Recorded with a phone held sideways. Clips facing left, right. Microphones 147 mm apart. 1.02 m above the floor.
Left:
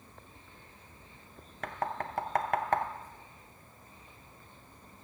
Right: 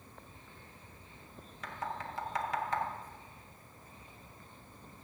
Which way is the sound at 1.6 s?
60° left (ahead or behind).